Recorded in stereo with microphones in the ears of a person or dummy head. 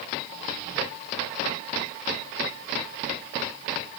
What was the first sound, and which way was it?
Only background noise.